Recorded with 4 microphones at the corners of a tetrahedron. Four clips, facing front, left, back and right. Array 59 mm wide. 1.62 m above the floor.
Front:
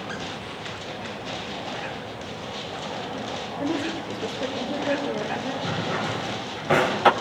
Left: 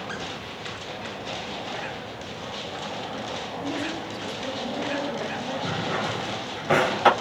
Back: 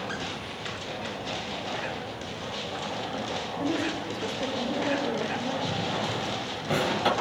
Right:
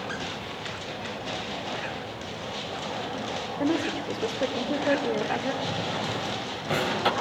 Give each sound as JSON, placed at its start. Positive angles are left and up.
{"t": 3.6, "sound": "a woman speaking", "azimuth_deg": -85, "distance_m": 4.0}
{"t": 5.6, "sound": "a drawer", "azimuth_deg": 40, "distance_m": 2.0}